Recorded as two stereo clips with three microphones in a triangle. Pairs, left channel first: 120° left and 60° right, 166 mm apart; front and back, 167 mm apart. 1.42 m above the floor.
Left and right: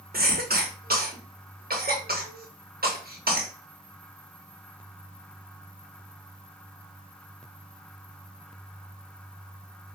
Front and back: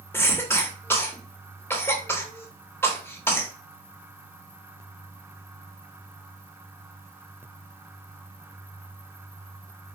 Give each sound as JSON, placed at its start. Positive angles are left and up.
{"t": 0.1, "sound": "a cough", "azimuth_deg": -75, "distance_m": 1.0}